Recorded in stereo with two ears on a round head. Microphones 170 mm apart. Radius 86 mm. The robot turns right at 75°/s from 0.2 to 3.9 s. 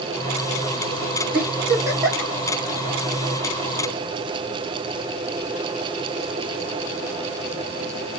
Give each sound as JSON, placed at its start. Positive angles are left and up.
{"t": 1.3, "sound": "a giggle", "side_deg": -55, "distance_m": 3.0}